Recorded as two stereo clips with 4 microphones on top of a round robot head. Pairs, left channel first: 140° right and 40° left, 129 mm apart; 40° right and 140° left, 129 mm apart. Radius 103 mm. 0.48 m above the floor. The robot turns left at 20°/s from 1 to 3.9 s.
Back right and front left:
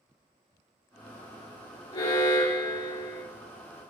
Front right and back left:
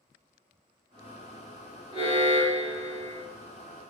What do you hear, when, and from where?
1.9 s an alarm: 80° right, 4.5 m; by 3.2 s 105° right, 4.5 m